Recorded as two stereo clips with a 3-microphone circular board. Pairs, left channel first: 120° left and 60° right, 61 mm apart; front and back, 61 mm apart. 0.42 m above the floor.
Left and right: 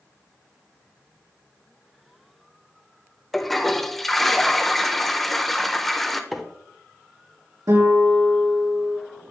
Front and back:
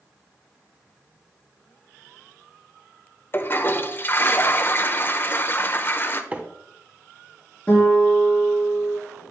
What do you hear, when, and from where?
3.3 s a toilet flushing: 35° left, 0.6 m
6.3 s a microwave: 145° right, 0.9 m
7.7 s a guitar: 65° right, 4 m